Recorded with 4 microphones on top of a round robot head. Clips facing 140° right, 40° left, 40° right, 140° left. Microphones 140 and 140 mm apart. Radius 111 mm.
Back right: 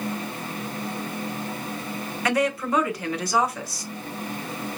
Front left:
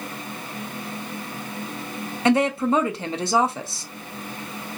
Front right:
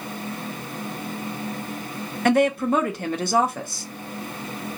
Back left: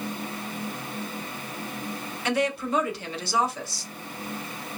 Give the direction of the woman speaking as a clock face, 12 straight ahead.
1 o'clock.